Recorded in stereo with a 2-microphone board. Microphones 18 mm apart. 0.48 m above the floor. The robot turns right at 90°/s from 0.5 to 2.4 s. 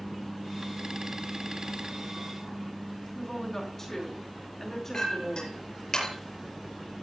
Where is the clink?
40° left (ahead or behind), 7.5 m.